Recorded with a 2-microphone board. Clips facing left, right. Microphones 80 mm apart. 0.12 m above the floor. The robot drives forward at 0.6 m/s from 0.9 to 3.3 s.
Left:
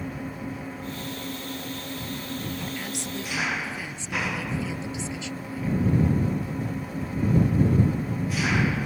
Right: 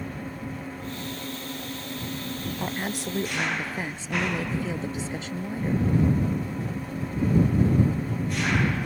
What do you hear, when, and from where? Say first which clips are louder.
0.0 s an engine running: left 1 dB; 5° left (ahead or behind)
2.6 s a woman speaking: right 3 dB; 40° right (ahead or behind); by 5.9 s 45° right (ahead or behind)